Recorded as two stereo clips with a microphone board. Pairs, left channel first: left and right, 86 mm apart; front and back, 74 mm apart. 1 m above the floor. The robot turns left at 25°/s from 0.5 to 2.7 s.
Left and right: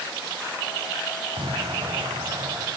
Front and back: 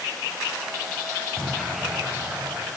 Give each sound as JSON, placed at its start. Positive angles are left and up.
{"t": 1.4, "sound": "an explosion", "azimuth_deg": -85, "distance_m": 5.0}